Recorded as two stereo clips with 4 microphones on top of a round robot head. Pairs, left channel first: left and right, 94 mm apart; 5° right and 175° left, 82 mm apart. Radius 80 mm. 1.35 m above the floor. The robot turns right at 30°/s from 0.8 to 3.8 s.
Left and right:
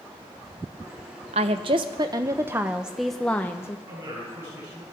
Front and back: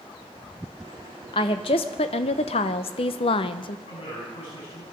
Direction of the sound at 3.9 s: 20° right.